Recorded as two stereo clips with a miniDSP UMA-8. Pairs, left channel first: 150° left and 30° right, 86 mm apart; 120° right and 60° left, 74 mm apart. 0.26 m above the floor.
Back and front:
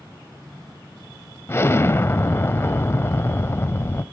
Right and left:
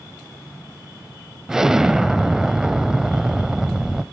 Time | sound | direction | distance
1.5 | an explosion | 135° left | 0.5 m